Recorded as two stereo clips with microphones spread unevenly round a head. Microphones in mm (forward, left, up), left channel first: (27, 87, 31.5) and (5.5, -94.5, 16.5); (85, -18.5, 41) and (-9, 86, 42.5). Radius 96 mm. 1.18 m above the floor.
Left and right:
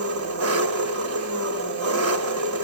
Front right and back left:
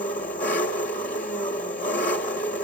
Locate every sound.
0.0 s an engine running: 100° right, 1.7 m